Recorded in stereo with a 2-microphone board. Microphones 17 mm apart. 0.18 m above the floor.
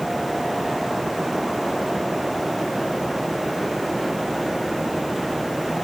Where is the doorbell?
I don't hear a doorbell.